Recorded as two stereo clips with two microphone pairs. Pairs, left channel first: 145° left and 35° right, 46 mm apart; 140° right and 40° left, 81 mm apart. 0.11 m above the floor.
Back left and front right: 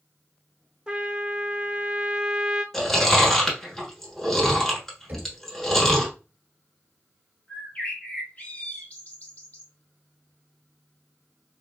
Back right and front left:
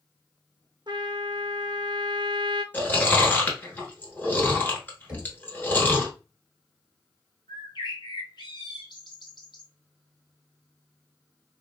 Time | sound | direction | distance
0.9 | a trumpet | 35° left | 0.6 m
2.7 | chewing | 145° right | 1.0 m
5.1 | knocking | 25° right | 1.5 m
7.5 | a bird | 155° right | 0.8 m